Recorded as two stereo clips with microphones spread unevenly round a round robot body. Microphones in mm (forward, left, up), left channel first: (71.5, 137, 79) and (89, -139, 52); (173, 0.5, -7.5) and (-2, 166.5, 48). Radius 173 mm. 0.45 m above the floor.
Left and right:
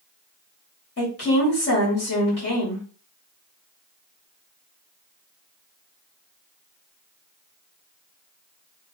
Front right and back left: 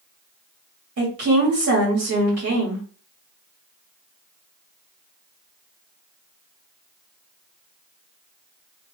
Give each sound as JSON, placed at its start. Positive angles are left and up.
{"t": 1.0, "sound": "a woman speaking", "azimuth_deg": 140, "distance_m": 1.5}